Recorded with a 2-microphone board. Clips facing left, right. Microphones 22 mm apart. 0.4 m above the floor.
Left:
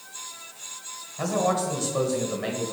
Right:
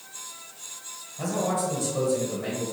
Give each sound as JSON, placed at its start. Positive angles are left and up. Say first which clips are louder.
{"t": 1.2, "sound": "a man speaking", "louder": "left 2 dB", "side_deg": 35, "distance_m": 1.4}